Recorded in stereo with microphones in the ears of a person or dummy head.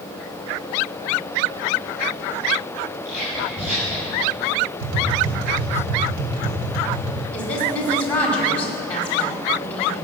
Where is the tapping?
75° right (ahead or behind), 3 m.